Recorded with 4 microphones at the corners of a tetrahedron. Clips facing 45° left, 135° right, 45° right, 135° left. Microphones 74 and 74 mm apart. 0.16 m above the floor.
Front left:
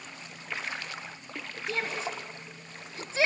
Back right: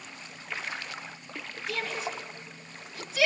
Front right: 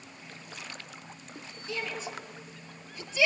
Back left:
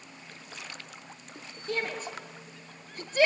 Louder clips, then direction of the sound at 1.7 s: Front left 1 dB, back left 3 dB; 100° left.